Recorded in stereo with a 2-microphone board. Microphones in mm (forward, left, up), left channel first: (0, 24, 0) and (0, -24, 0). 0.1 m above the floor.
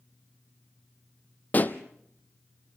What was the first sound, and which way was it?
A pop, 35° left (ahead or behind).